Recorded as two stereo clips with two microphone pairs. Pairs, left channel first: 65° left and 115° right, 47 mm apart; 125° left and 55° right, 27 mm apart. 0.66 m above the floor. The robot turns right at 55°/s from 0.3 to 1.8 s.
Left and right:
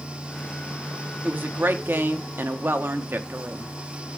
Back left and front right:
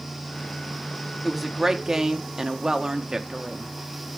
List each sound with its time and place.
1.2 s a woman speaking: 145° right, 0.8 m; by 3.7 s 115° right, 0.8 m